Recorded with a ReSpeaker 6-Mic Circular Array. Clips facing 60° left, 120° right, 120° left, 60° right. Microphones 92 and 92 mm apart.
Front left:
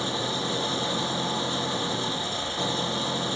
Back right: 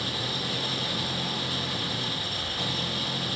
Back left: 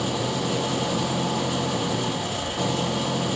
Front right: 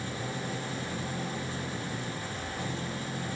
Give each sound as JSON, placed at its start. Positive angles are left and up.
{"t": 0.0, "sound": "an engine running", "azimuth_deg": 120}